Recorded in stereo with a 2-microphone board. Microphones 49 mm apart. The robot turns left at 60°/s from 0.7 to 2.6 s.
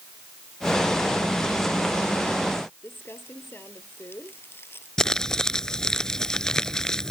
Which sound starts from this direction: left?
Crumpling, at 2.8 s.